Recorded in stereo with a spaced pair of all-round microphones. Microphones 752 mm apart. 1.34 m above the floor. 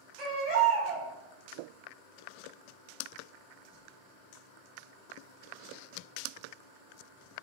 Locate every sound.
0.2 s a baby crying: 60° right (ahead or behind), 0.8 m